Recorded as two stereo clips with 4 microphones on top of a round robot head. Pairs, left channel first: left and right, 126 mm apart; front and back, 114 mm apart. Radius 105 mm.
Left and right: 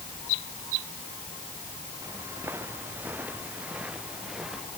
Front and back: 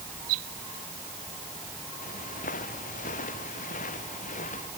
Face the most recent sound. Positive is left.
turn(degrees=-5)